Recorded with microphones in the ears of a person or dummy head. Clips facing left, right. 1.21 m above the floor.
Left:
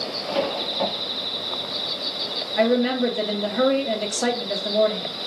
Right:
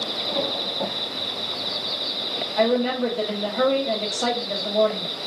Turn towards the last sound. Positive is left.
turn(degrees=15)  # may be behind; listen again after turning